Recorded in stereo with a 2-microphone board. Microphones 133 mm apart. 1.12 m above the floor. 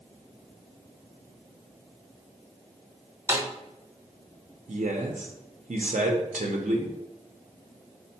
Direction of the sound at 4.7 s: 70° right (ahead or behind).